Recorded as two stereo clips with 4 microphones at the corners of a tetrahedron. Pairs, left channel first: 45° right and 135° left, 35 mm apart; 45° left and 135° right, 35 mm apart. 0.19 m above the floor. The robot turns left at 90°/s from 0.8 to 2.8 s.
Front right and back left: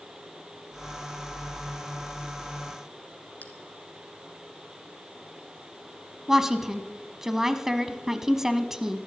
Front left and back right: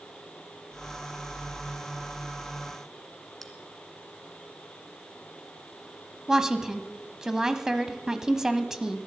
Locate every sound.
3.4 s a bell: 40° right, 1.9 m
6.3 s a woman speaking: 175° right, 1.0 m